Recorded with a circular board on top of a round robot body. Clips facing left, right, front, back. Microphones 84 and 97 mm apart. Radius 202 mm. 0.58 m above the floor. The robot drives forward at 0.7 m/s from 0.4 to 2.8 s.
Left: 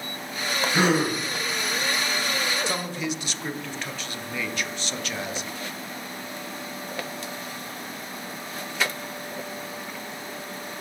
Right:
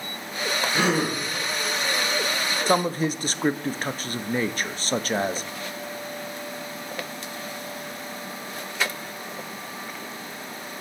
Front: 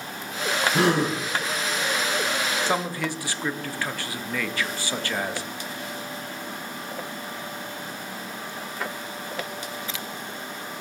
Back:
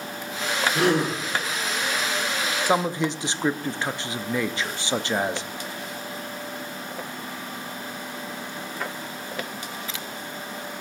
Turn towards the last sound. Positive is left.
turn(degrees=-120)